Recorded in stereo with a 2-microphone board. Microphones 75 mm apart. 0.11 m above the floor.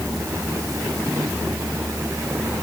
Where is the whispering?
I don't hear whispering.